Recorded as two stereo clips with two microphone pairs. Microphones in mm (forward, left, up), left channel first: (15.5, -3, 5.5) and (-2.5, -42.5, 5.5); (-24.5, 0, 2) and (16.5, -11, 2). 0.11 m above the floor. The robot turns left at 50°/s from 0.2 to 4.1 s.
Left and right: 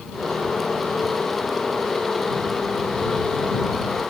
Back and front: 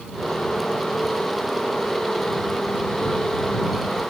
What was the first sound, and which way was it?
Only background noise.